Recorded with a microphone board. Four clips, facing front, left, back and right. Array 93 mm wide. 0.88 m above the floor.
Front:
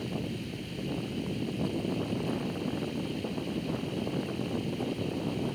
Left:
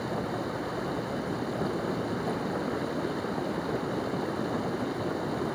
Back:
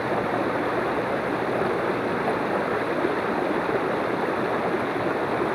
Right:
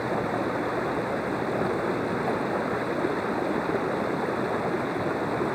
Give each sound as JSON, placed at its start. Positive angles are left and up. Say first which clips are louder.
{"t": 0.0, "sound": "running water", "louder": "right 5 dB, back 12 dB", "azimuth_deg": -160}